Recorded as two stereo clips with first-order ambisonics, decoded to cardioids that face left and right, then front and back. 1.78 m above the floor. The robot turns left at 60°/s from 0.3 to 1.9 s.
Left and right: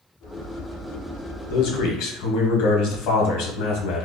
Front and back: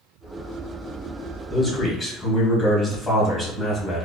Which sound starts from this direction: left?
A man speaking, at 1.5 s.